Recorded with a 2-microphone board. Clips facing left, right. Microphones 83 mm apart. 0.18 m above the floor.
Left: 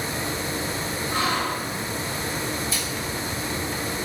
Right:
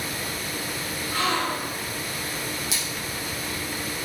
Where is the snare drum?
I don't hear a snare drum.